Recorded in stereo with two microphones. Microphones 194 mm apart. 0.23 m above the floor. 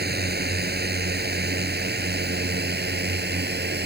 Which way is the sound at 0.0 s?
65° right (ahead or behind).